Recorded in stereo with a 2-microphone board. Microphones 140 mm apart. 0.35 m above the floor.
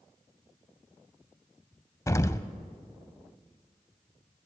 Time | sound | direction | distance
2.1 | an explosion | 25° left (ahead or behind) | 0.5 m